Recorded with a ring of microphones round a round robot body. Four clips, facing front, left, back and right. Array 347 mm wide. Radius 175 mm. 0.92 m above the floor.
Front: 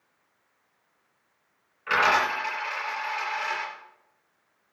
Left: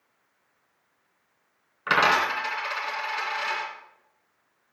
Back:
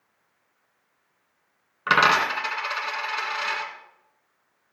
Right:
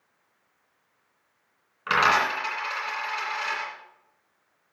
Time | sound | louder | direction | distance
1.9 | a dropped coin | even, back 3 dB | 175° left | 3 m